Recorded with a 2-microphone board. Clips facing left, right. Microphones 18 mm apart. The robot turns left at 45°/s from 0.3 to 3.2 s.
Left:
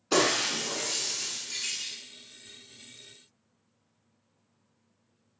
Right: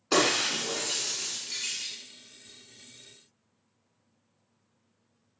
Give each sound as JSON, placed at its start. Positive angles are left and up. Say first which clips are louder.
{"t": 0.1, "sound": "breaking glass", "louder": "right 1 dB", "side_deg": -35, "distance_m": 0.8}